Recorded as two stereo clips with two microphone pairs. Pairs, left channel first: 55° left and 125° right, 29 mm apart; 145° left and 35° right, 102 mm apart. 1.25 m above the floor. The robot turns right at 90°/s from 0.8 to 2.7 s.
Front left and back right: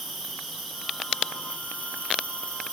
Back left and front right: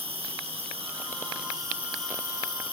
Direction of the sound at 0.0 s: 50° right.